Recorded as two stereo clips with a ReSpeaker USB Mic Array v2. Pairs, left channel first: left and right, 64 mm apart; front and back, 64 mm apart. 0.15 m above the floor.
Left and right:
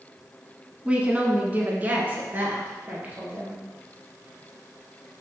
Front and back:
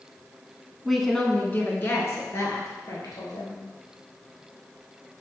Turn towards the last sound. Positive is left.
turn(degrees=-30)